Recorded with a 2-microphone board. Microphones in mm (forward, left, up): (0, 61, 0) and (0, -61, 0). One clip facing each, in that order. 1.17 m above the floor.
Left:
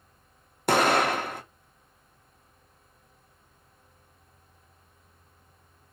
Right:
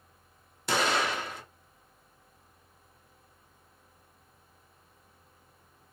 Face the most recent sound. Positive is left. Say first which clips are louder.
# left 6 dB
turn(degrees=55)  # may be behind; listen again after turning